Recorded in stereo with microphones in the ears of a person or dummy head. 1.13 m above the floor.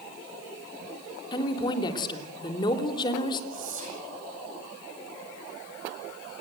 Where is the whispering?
45° right (ahead or behind), 8 m.